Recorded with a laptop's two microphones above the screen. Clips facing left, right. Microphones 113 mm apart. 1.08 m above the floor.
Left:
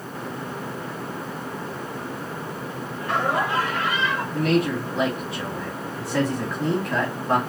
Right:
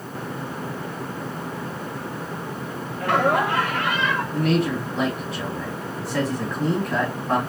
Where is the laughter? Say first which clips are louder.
Right 4 dB; 65° right (ahead or behind), 0.6 m; by 4.2 s 55° right (ahead or behind), 1.0 m.